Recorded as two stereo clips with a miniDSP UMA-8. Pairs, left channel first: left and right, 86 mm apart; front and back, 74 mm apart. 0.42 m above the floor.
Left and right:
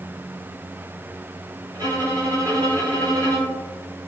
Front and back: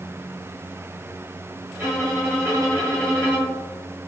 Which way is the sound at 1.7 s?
130° right.